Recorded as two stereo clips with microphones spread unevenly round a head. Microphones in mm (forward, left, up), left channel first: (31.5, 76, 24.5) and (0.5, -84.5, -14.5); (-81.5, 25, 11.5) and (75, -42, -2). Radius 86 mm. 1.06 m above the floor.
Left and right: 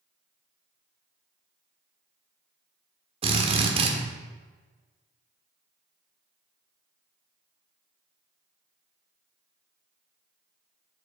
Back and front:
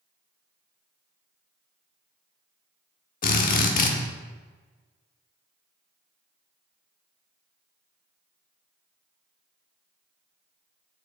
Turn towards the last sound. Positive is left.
turn(degrees=-165)